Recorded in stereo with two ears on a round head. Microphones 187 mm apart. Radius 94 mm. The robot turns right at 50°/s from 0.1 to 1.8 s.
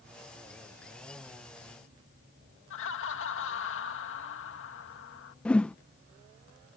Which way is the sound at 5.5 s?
5° left (ahead or behind).